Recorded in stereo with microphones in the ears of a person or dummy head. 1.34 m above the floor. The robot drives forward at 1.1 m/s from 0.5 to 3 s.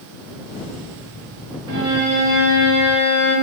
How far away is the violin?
About 0.9 m.